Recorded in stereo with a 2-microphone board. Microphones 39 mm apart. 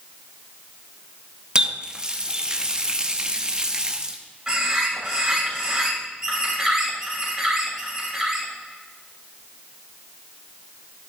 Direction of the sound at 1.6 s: 20° right (ahead or behind).